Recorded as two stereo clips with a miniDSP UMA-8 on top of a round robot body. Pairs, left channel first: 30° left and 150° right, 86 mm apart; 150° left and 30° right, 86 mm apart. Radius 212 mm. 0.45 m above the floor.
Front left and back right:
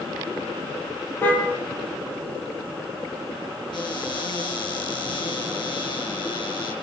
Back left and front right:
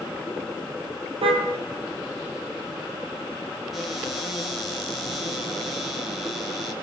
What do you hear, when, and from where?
1.2 s a car horn: 35° right, 9.5 m
3.7 s a cupboard door: 55° left, 6 m